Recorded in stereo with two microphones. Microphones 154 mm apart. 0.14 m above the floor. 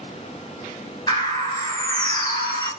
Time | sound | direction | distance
1.1 | a bird | 30° left (ahead or behind) | 1.7 m